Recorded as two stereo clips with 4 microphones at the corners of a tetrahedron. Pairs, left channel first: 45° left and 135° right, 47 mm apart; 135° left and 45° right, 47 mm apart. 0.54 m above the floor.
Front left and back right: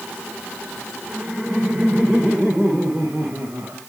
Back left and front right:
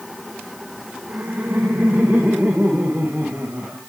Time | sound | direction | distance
1.1 | laughter | 70° right | 2.5 m